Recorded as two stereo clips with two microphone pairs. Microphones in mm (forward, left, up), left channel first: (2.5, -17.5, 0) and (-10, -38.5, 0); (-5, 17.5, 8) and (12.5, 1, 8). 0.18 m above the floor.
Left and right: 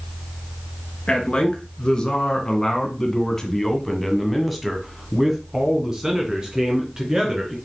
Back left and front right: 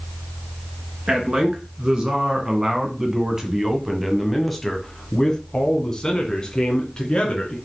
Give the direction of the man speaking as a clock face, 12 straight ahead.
12 o'clock.